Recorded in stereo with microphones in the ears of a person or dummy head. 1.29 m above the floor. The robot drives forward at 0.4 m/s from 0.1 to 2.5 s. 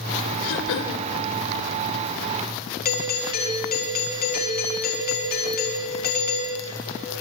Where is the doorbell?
50° left (ahead or behind), 4.5 m.